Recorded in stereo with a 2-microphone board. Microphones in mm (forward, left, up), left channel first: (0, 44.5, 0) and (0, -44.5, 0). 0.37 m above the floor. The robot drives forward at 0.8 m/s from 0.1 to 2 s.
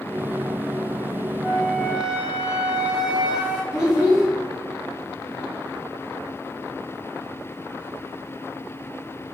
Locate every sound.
1.4 s a flute: 20° right (ahead or behind), 0.6 m; by 3.6 s 15° right (ahead or behind), 0.8 m
3.7 s a child speaking: 10° right (ahead or behind), 1.0 m